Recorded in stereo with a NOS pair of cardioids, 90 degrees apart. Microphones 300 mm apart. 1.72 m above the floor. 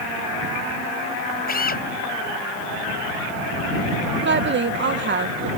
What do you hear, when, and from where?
1.5 s a drill: 30° left
4.2 s a woman speaking: 40° right